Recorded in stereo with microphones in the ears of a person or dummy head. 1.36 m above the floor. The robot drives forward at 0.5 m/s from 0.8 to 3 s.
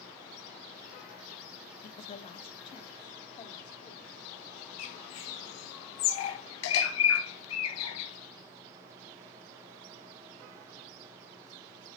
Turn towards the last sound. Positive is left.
turn(degrees=70)  # may be behind; listen again after turning